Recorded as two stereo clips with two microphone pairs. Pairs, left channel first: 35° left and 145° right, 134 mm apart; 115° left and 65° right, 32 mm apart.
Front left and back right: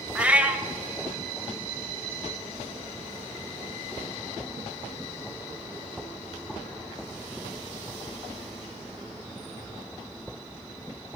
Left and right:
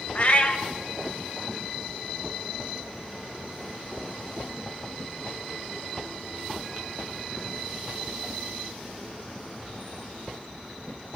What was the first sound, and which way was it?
A cat meowing, 135° left.